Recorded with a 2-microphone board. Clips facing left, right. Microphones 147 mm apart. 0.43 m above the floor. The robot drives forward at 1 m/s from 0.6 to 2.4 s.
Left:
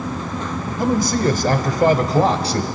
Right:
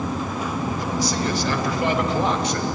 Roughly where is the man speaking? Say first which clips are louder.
Left 10 dB; left.